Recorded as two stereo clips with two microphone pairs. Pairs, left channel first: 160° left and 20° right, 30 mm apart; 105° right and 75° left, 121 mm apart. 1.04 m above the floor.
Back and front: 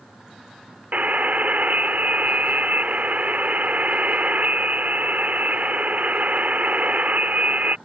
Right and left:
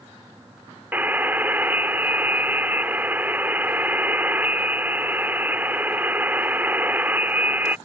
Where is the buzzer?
Straight ahead.